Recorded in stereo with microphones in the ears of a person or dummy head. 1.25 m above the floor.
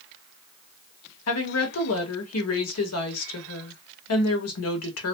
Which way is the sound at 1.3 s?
75° left (ahead or behind).